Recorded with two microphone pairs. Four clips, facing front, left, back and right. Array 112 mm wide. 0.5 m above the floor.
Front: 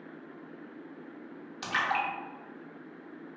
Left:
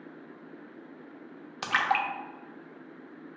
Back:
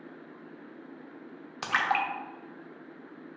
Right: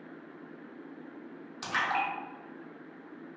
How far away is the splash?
About 0.5 m.